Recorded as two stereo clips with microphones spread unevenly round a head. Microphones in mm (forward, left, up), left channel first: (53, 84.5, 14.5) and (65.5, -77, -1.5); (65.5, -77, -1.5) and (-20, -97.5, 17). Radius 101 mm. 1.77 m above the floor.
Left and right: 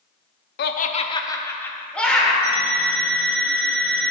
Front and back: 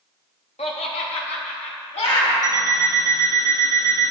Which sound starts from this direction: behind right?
An alarm clock, at 2.4 s.